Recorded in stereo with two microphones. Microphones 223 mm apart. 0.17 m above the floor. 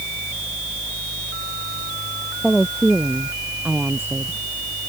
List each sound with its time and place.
2.4 s a woman speaking: 5° left (ahead or behind); by 4.4 s 10° right (ahead or behind)